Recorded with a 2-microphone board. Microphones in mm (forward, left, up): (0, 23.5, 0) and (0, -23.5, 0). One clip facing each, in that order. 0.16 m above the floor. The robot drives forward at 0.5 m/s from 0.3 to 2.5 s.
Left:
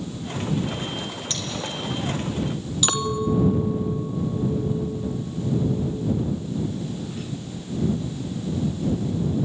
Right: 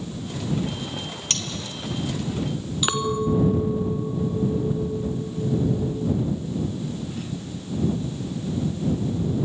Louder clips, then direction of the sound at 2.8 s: Right 1 dB; 10° right (ahead or behind).